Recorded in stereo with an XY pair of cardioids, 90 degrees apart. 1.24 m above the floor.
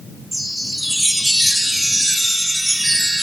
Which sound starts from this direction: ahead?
A chime, at 0.3 s.